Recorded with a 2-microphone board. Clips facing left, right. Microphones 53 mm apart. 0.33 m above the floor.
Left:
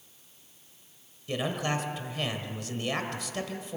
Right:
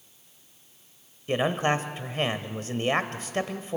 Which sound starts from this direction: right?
A man speaking, at 1.3 s.